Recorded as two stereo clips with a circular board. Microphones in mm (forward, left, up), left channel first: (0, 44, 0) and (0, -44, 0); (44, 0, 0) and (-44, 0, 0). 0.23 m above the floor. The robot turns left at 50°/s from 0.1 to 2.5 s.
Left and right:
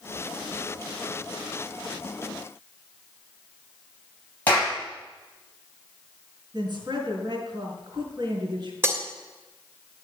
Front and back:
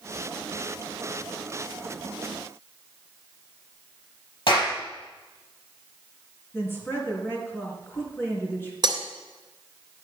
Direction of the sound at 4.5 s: 20° left.